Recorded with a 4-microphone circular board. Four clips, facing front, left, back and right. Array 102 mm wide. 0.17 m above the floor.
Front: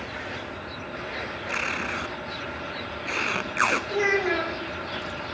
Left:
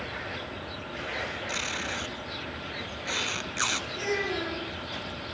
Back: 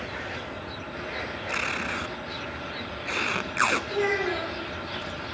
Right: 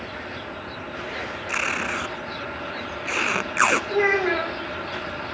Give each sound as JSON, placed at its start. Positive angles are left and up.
{"t": 1.5, "sound": "tape being pulled", "azimuth_deg": -85, "distance_m": 0.7}
{"t": 3.9, "sound": "a child speaking", "azimuth_deg": -80, "distance_m": 6.0}